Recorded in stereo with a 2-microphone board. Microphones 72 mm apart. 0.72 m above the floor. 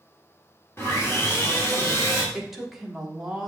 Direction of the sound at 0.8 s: 35° left (ahead or behind).